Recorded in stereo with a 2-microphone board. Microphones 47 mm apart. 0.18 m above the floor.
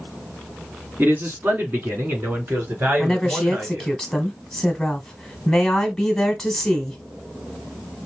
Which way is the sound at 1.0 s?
40° right (ahead or behind).